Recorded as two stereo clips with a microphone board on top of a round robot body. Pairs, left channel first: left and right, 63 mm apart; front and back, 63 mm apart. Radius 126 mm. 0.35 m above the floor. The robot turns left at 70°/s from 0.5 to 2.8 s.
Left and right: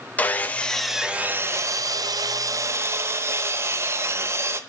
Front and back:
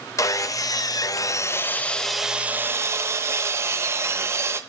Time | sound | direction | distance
0.2 | sawing | 25° left | 0.7 m